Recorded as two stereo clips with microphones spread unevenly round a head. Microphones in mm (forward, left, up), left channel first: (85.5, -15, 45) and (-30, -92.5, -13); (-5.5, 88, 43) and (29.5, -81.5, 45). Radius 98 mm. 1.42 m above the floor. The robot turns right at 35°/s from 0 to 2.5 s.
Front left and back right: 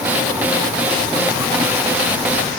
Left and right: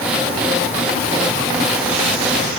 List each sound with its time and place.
Only background noise.